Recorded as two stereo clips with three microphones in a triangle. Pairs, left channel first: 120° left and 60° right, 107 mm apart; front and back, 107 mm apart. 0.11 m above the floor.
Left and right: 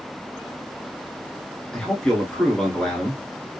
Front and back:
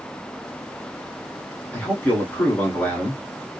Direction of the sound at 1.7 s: 45° left.